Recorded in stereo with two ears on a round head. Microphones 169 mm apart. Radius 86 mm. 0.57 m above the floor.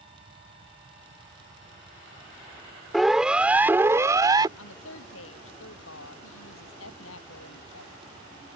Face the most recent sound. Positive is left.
turn(degrees=85)